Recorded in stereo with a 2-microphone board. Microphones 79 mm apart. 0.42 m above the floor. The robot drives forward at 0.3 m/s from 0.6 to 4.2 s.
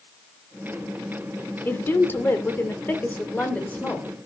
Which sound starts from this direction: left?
A woman speaking, at 1.6 s.